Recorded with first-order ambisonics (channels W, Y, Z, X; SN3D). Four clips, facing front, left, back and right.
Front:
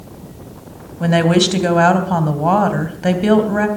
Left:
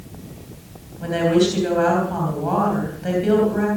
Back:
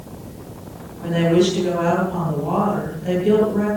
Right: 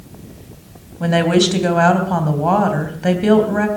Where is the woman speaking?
35° right, 3 m.